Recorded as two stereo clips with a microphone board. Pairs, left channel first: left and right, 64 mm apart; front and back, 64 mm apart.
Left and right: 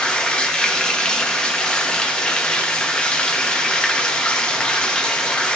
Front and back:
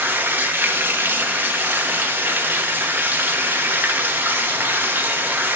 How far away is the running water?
About 0.8 m.